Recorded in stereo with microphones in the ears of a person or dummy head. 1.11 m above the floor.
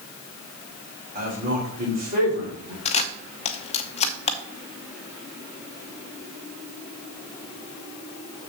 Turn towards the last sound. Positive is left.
turn(degrees=35)  # may be behind; listen again after turning